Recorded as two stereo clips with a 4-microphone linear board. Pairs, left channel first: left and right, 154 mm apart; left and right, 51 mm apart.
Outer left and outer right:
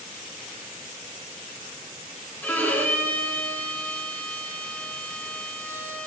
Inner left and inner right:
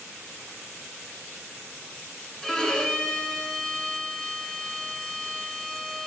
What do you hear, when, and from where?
2.4 s a violin: 10° left (ahead or behind), 1.8 m